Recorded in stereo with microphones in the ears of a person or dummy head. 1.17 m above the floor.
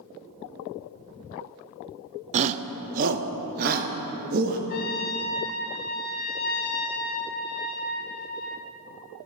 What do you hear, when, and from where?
2.3 s a shout: 35° right (ahead or behind), 0.5 m; by 4.6 s 55° right (ahead or behind), 1.7 m
4.7 s a trumpet: 50° left (ahead or behind), 1.9 m